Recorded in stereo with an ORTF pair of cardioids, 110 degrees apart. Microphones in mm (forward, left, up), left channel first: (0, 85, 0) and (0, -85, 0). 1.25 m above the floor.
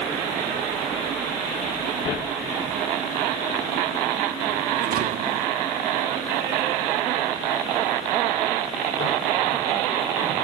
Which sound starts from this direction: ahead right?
A thud, at 4.8 s.